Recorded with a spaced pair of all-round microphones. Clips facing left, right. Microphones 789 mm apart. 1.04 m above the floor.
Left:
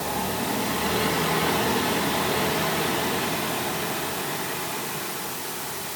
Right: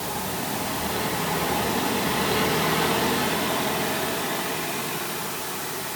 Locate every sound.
Only background noise.